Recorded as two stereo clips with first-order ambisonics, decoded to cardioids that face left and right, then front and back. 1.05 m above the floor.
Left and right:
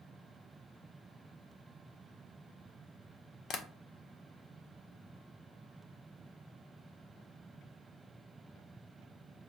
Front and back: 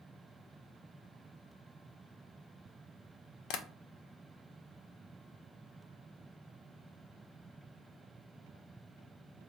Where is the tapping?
35° left, 0.6 m.